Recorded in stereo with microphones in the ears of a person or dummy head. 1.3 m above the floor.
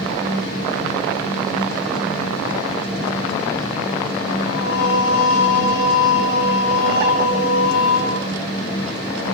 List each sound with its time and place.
4.5 s singing: 85° left, 6 m